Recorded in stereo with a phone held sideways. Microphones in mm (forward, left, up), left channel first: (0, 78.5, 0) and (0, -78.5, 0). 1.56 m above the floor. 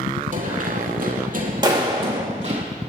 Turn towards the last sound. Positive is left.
turn(degrees=-30)  # may be behind; listen again after turning